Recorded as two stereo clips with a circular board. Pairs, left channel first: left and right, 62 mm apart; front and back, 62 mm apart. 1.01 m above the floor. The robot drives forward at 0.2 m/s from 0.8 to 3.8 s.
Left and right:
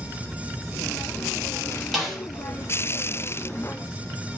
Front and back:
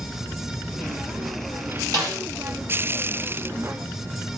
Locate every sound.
1.9 s a snare drum: straight behind, 1.9 m